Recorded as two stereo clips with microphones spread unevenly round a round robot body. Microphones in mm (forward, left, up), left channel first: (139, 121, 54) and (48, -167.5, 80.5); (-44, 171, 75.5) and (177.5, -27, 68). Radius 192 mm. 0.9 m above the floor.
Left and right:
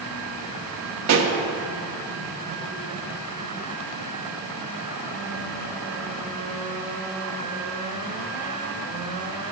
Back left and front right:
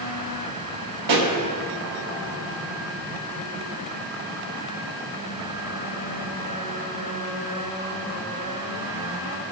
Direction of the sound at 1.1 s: 75° right.